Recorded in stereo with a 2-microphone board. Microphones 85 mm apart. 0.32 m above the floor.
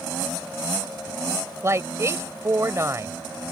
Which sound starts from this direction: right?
A woman speaking, at 1.6 s.